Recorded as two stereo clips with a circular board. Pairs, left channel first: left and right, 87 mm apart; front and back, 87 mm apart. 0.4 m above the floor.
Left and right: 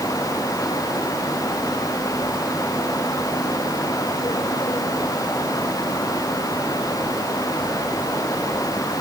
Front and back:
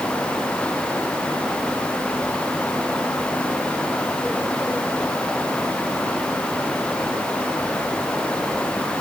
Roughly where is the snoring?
I don't hear snoring.